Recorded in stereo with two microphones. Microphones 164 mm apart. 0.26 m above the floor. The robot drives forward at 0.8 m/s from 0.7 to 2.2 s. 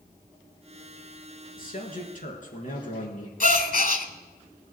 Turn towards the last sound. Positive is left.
turn(degrees=60)  # may be behind; listen again after turning